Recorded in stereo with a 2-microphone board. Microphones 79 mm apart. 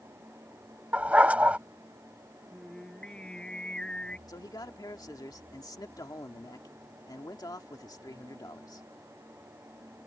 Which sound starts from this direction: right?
A dog barking, at 0.9 s.